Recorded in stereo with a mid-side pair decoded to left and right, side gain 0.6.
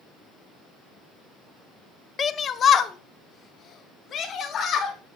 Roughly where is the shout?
Ahead left.